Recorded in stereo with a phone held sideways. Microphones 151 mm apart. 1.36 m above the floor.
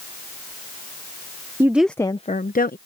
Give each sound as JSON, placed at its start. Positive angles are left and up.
{"t": 1.6, "sound": "a woman speaking", "side_deg": -20}